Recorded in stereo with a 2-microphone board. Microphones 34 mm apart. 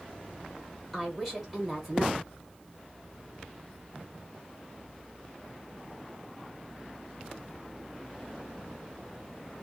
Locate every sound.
0.9 s a woman speaking: centre (ahead or behind), 1.1 m